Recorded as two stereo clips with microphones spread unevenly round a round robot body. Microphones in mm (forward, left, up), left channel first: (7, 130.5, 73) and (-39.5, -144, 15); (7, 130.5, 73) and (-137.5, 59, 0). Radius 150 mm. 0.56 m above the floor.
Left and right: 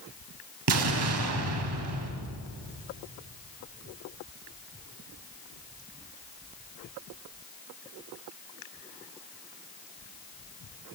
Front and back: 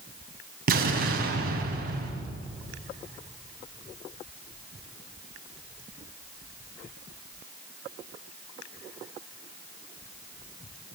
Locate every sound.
0.7 s an explosion: 130° right, 4 m